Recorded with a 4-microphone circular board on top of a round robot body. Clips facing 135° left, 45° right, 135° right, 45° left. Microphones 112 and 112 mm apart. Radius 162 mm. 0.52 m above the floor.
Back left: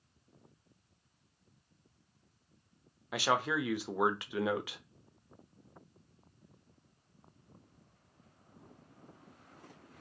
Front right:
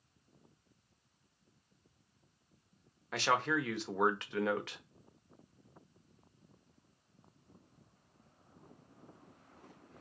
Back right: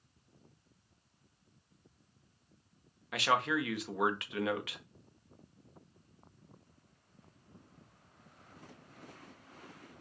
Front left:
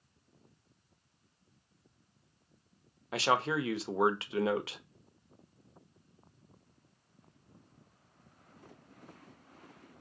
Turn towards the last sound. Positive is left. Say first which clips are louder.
# back left 1 dB, front left 1 dB
turn(degrees=65)